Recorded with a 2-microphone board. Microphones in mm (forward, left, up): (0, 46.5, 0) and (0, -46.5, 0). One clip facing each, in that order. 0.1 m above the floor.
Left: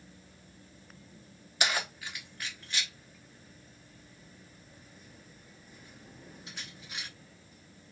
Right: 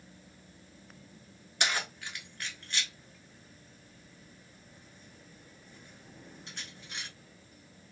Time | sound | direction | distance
1.6 | keys jangling | 5° left (ahead or behind) | 1.0 m